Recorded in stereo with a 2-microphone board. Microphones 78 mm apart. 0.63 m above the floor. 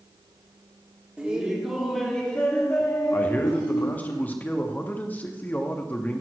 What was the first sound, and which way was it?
Laughter, 15° right (ahead or behind).